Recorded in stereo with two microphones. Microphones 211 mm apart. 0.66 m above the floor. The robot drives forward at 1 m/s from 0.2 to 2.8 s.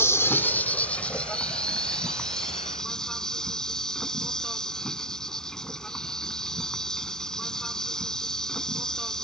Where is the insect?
10° left (ahead or behind); by 9.2 s 5° left (ahead or behind).